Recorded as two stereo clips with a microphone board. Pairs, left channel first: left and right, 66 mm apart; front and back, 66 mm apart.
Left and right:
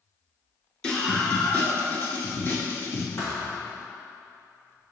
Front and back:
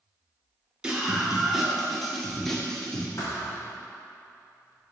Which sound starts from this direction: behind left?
A scream, at 0.8 s.